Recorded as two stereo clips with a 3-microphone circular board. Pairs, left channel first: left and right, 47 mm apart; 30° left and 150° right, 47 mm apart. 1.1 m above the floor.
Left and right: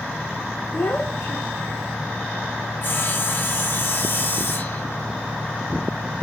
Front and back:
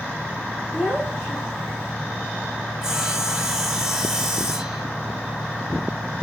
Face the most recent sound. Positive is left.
turn(degrees=135)